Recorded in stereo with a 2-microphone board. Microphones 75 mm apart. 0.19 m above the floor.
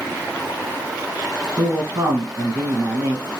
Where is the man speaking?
25° right (ahead or behind), 1.2 m.